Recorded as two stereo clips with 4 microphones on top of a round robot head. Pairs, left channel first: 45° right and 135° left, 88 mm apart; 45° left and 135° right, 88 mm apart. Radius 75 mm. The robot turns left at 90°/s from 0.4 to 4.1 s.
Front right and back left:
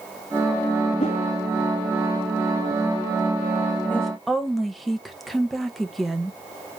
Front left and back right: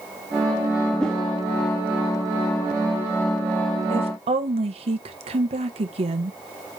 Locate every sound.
1.0 s a whoosh: 35° right, 1.1 m; by 1.2 s 55° right, 1.1 m
3.9 s a woman speaking: 115° right, 1.5 m; by 6.4 s 135° right, 1.5 m